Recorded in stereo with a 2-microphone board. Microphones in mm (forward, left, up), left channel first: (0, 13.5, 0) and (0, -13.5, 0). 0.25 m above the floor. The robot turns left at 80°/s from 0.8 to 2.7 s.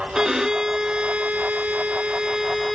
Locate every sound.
0.1 s a violin: 30° right, 0.5 m; by 2.8 s straight behind, 0.5 m